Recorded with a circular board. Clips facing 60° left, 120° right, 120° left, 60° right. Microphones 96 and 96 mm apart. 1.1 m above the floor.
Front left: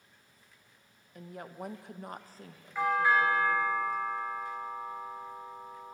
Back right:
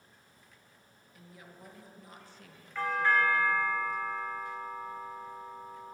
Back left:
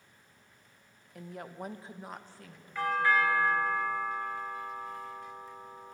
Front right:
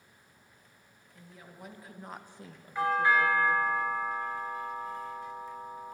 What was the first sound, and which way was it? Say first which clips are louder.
A woman speaking: front left 10 dB, back left 9 dB; 100° left.